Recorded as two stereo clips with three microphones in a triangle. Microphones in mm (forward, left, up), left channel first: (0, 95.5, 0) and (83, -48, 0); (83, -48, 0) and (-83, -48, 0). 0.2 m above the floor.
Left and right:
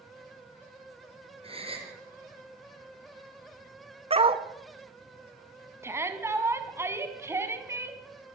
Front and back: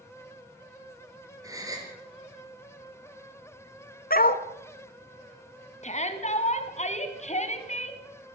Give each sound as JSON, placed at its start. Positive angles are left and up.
{"t": 1.4, "sound": "a gasp", "azimuth_deg": -110, "distance_m": 4.0}
{"t": 4.1, "sound": "a dog barking", "azimuth_deg": -10, "distance_m": 1.1}
{"t": 5.8, "sound": "a shout", "azimuth_deg": 10, "distance_m": 2.0}